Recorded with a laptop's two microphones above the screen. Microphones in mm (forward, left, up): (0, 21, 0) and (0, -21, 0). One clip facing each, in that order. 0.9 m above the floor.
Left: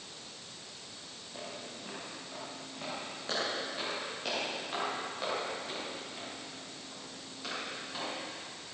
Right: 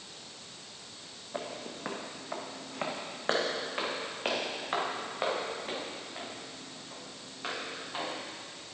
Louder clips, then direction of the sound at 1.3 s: Right 6 dB; 55° right (ahead or behind).